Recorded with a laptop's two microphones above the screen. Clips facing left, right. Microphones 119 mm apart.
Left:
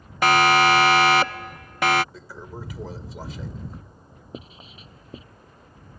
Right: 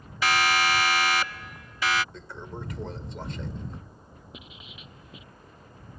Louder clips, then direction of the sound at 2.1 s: Left 1 dB; 5° left (ahead or behind).